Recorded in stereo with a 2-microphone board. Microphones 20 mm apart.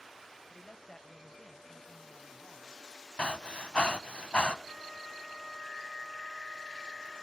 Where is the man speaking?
25° left (ahead or behind), 1.4 m; by 2.8 s centre (ahead or behind), 2.5 m.